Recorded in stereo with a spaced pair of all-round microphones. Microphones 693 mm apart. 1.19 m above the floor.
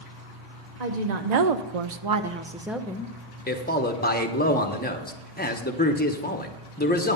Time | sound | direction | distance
0.8 | a woman speaking | 70° right (ahead or behind) | 1.1 m
3.5 | a man speaking | 15° left (ahead or behind) | 1.0 m